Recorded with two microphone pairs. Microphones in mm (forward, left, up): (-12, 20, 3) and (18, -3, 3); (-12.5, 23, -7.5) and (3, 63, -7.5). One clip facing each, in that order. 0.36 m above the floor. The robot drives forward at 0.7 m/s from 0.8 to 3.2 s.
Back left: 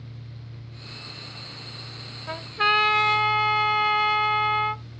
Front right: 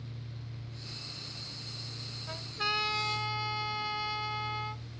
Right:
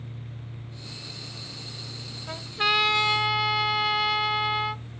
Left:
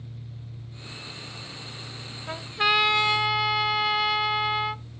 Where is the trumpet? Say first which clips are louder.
Back left 12 dB, left 2 dB; 135° left; by 4.8 s 155° left.